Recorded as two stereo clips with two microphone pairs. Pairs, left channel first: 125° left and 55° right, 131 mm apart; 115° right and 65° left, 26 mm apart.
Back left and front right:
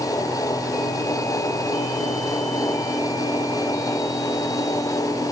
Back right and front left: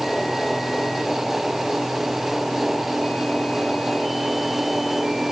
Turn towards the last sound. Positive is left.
No sound to turn to.